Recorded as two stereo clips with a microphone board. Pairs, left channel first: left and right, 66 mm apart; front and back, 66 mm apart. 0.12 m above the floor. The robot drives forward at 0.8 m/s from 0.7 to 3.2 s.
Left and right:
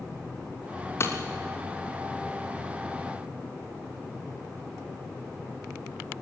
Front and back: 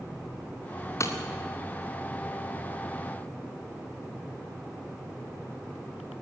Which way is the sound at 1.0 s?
40° left.